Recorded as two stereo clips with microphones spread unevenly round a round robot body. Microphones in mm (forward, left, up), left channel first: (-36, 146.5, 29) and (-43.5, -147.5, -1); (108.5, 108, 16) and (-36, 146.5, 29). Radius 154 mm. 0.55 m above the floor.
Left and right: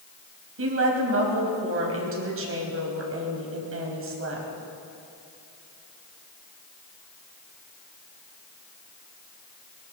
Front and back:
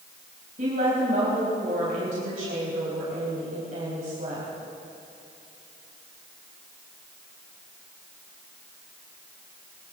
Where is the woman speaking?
135° right, 3.5 m.